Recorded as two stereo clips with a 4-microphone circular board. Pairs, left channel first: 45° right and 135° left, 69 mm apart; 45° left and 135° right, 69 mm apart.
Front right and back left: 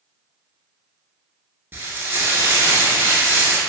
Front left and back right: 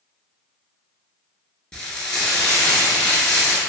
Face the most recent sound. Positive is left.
turn(degrees=115)